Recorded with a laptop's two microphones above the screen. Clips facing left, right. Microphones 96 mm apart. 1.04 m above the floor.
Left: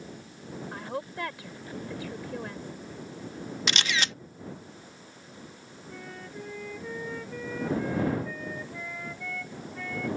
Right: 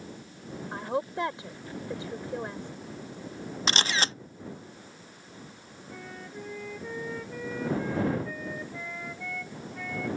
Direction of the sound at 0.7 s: 25° right (ahead or behind).